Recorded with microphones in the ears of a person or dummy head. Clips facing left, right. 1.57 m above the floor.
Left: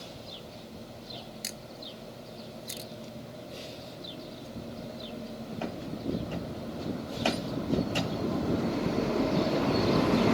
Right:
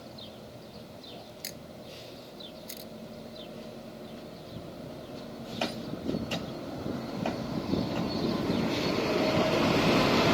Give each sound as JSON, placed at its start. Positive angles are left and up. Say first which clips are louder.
{"t": 1.4, "sound": "a camera shutter", "louder": "left 1 dB", "side_deg": -5}